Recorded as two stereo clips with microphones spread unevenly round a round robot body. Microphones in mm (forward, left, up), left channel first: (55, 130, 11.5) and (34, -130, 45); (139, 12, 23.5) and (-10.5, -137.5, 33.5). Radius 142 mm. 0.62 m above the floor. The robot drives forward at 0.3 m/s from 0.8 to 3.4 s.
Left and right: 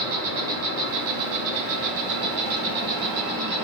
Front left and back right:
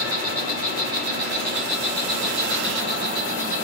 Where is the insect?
85° right, 2.0 m; by 3.6 s 110° right, 2 m.